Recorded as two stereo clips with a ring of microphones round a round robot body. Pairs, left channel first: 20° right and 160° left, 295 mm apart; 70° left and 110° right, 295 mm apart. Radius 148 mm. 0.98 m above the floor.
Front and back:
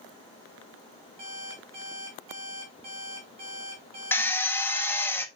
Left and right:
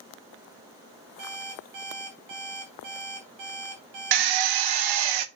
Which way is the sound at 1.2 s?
130° right.